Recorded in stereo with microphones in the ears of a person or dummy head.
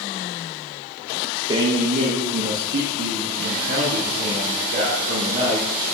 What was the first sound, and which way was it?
A man speaking, 30° right (ahead or behind).